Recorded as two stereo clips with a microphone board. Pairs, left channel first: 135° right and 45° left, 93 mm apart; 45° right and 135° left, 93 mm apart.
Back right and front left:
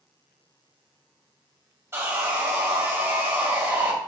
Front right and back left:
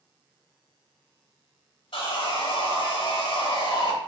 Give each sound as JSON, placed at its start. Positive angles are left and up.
{"t": 1.9, "sound": "sawing", "azimuth_deg": -20, "distance_m": 1.2}